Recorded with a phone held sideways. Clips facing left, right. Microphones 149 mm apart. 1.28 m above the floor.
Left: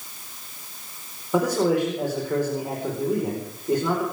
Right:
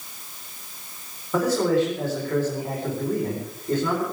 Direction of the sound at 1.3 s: 15° left (ahead or behind).